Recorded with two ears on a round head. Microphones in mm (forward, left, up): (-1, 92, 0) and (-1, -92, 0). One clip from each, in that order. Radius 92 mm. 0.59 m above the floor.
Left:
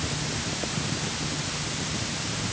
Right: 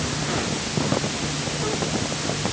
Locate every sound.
Only background noise.